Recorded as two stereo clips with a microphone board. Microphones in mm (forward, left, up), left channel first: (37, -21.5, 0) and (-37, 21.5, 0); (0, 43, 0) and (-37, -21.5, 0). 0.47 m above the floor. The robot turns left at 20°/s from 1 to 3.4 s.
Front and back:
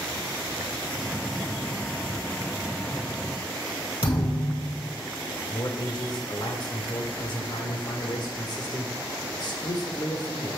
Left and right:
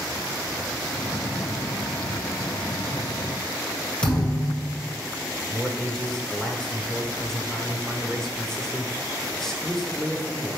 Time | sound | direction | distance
4.0 | a thud | 15° right | 1.9 m
5.5 | a man speaking | 20° right | 1.1 m